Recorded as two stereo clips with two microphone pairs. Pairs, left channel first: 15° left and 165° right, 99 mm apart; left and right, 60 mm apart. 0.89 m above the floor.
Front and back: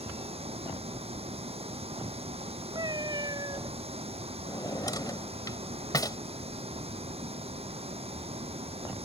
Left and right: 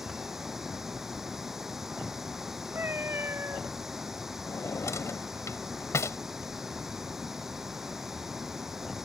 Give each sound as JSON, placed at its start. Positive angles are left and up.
{"t": 0.0, "sound": "running water", "azimuth_deg": -170}
{"t": 2.8, "sound": "a cat meowing", "azimuth_deg": -130}
{"t": 4.5, "sound": "a drawer", "azimuth_deg": 60}